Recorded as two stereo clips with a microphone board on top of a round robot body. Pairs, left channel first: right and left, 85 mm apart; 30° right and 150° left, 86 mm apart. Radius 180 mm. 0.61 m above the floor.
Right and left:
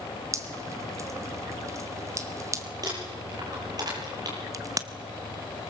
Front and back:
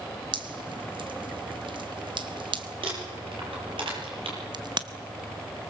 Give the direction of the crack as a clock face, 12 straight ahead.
8 o'clock.